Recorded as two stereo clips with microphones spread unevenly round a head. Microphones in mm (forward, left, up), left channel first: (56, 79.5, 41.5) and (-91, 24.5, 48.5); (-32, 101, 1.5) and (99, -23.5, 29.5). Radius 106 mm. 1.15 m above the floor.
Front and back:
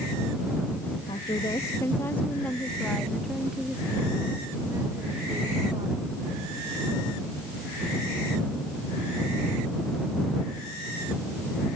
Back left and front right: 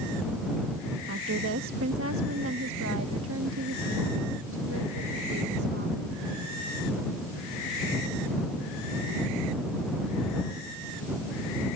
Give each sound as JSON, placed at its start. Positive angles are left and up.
{"t": 1.1, "sound": "a woman speaking", "azimuth_deg": -45}